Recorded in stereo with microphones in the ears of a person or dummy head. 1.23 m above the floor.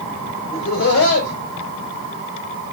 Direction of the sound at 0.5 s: 65° left (ahead or behind).